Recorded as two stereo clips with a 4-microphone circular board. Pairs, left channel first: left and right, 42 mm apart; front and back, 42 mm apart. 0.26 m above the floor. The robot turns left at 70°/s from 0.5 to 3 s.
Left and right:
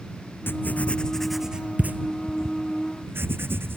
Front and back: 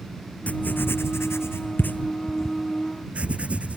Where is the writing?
55° left; by 3.8 s 120° right.